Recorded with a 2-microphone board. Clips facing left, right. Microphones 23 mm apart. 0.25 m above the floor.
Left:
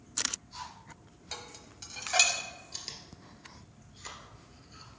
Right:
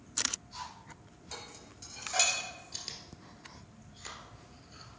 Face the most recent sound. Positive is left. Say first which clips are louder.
# even
turn(degrees=0)  # may be behind; listen again after turning